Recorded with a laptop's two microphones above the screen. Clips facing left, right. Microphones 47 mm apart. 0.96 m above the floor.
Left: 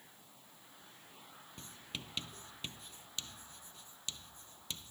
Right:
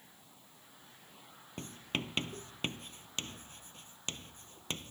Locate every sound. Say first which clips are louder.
1.6 s writing: right 10 dB; 50° right (ahead or behind)